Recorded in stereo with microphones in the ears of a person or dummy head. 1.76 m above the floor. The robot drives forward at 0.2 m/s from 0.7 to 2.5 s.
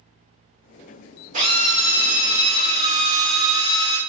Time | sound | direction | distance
1.3 | a drill | 40° right (ahead or behind) | 1.0 m